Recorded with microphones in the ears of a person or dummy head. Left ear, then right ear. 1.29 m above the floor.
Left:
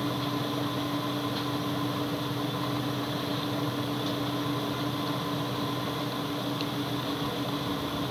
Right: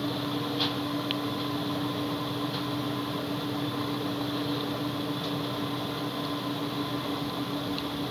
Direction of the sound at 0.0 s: 5° left (ahead or behind).